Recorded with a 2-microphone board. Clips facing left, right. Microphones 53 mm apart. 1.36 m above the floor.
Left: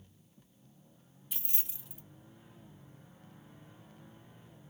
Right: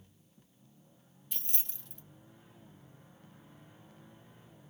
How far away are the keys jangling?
About 0.7 m.